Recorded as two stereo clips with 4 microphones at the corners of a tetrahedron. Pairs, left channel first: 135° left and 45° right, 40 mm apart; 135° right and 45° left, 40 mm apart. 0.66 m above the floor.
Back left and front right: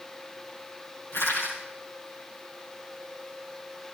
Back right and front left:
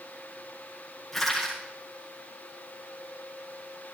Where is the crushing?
135° left, 9 m.